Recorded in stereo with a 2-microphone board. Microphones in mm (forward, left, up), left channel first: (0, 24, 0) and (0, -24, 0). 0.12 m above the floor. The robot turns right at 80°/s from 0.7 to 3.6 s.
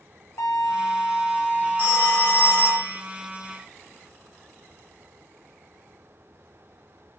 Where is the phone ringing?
75° left, 1.2 m; by 3.0 s 170° left, 1.2 m.